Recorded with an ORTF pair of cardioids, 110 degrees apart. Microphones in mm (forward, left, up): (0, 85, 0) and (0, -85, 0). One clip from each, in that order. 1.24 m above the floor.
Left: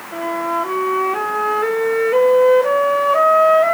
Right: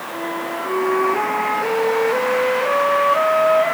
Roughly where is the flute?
Ahead.